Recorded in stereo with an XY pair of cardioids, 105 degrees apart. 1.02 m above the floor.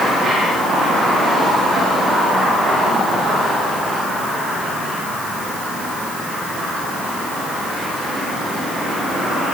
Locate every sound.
Only background noise.